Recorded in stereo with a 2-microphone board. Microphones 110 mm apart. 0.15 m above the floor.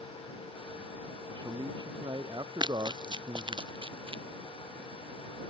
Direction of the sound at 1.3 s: 40° right (ahead or behind).